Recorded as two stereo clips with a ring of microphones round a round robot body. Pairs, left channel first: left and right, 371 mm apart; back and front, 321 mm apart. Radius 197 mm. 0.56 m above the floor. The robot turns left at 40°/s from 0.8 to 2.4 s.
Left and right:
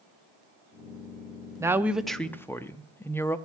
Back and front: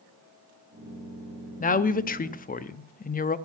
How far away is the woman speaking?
About 0.7 m.